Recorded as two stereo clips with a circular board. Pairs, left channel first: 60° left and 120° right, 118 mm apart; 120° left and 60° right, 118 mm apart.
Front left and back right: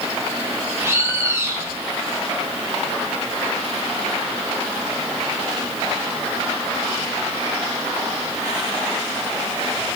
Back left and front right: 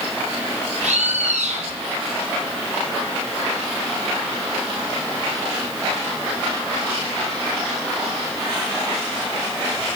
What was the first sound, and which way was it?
A bird, 55° right.